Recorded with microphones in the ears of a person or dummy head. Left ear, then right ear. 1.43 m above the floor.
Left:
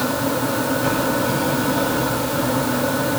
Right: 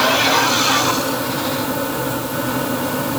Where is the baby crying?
I don't hear a baby crying.